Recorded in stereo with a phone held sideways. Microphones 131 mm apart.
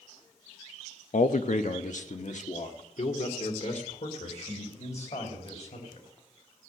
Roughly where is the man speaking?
Left.